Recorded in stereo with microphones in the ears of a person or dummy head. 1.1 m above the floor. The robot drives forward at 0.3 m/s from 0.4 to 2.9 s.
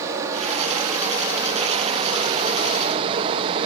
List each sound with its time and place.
0.0 s running water: 15° right (ahead or behind), 1.5 m; by 3.7 s 30° right (ahead or behind), 0.8 m